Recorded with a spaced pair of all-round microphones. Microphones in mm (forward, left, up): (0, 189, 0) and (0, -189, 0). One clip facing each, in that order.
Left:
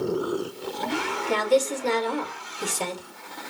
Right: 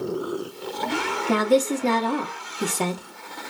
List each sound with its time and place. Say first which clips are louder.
1.3 s a woman speaking: right 3 dB; 70° right (ahead or behind), 1.2 m